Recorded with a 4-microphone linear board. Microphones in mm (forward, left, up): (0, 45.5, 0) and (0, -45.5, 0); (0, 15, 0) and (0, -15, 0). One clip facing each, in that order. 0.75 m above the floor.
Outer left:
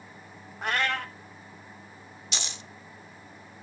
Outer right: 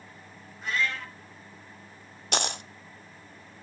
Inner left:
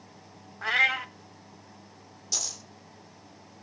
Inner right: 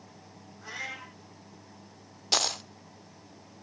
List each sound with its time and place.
0.6 s a cat meowing: 65° left (ahead or behind), 1.0 m
2.3 s a dropped coin: 55° right (ahead or behind), 0.6 m